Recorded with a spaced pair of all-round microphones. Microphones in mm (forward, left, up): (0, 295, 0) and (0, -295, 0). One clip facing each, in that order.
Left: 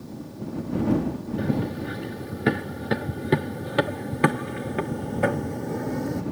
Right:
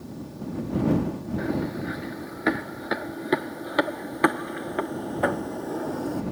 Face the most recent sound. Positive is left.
turn(degrees=45)  # may be behind; listen again after turning